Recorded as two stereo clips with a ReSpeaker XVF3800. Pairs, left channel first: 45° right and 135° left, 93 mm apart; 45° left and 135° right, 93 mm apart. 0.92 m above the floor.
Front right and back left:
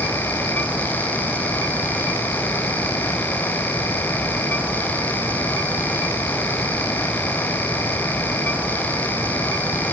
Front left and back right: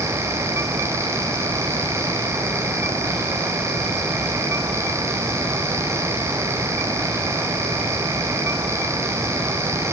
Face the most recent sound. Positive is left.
No sound to turn to.